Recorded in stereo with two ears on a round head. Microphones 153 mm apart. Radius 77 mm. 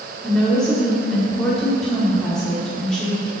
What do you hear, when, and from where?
0.2 s a woman speaking: 5° left (ahead or behind), 1.2 m